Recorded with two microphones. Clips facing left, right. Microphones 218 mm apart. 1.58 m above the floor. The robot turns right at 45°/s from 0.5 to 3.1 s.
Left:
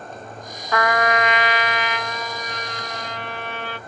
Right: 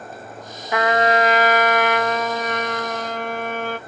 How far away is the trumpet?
About 0.5 m.